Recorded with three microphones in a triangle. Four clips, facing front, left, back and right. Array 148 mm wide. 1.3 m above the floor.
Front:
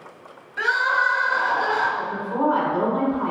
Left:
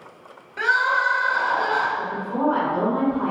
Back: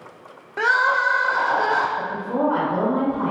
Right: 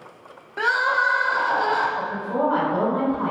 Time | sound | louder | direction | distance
0.6 | crying | even, back 2 dB | 155° right | 0.6 m
2.0 | a woman speaking | right 1 dB, back 1 dB | 155° right | 1.9 m